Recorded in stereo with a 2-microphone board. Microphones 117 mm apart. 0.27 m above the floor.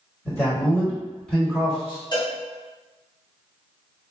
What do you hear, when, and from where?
0.2 s a man speaking: 25° left (ahead or behind), 1.9 m; by 2.0 s 10° right (ahead or behind), 2 m
2.1 s a cowbell: 40° left (ahead or behind), 1.3 m